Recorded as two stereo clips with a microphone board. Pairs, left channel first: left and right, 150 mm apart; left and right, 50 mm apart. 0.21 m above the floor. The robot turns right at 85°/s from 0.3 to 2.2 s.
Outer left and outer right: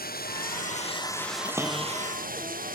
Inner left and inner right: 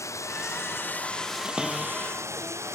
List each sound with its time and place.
0.0 s running water: 90° left; by 2.8 s 110° right
1.4 s a cupboard door: 25° right (ahead or behind); by 2.8 s 35° left (ahead or behind)